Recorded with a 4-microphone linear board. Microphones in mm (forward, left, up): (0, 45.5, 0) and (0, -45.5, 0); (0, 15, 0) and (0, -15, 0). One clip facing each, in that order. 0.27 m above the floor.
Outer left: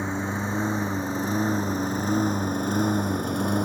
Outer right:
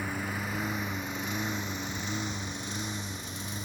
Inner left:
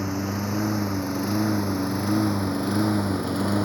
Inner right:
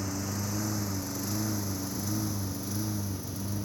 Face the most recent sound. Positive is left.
turn(degrees=55)  # may be behind; listen again after turning